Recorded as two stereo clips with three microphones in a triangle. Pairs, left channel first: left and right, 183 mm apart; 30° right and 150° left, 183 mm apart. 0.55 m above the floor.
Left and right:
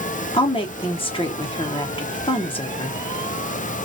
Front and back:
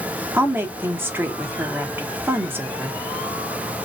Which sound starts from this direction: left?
A woman speaking, at 0.3 s.